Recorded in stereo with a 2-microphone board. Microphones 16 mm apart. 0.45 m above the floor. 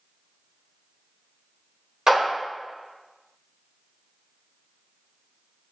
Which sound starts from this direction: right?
A clap, at 2.1 s.